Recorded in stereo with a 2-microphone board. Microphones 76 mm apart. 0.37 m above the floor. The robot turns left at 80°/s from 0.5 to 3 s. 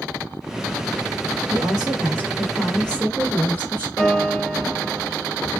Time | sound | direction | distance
1.5 | a woman speaking | 90° right | 1.6 m
4.0 | a piano | 15° left (ahead or behind) | 1.2 m